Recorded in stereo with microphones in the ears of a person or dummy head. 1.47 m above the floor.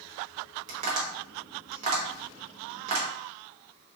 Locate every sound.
0.7 s tapping: 35° right (ahead or behind), 1.0 m